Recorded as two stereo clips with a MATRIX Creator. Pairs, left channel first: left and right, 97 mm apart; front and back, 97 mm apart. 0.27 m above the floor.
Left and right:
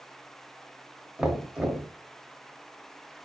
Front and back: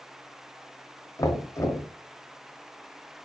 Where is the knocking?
15° right, 0.9 m.